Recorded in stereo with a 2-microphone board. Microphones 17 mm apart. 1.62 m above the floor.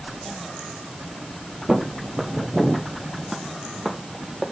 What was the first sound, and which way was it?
Footsteps, 25° right (ahead or behind).